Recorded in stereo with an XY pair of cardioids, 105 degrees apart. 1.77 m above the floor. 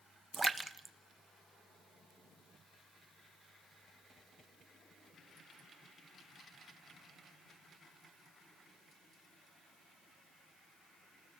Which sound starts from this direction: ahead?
A splash, at 0.3 s.